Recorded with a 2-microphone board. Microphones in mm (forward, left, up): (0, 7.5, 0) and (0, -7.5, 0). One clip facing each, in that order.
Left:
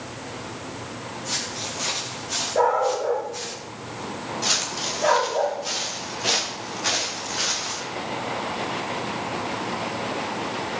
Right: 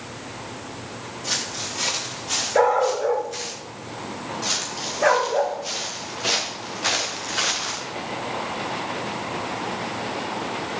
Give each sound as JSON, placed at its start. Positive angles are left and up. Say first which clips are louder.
{"t": 1.2, "sound": "footsteps", "louder": "right 2 dB", "side_deg": -55, "distance_m": 7.0}
{"t": 2.5, "sound": "a dog barking", "louder": "right 2 dB", "side_deg": -55, "distance_m": 2.5}
{"t": 4.4, "sound": "footsteps", "louder": "left 3 dB", "side_deg": 5, "distance_m": 3.5}